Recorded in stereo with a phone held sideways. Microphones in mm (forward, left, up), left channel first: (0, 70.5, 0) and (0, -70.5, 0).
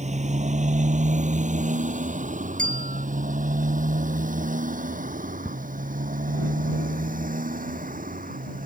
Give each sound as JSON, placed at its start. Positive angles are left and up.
{"t": 0.0, "sound": "a motorcycle", "side_deg": -55}
{"t": 2.6, "sound": "a bell", "side_deg": -65}
{"t": 5.5, "sound": "ticking", "side_deg": -10}